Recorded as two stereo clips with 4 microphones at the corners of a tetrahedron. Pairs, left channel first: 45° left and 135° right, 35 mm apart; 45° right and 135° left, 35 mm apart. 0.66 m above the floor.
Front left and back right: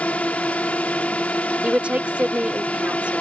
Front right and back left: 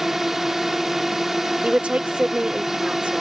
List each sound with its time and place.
0.0 s a drone: 60° left
1.6 s a woman speaking: straight behind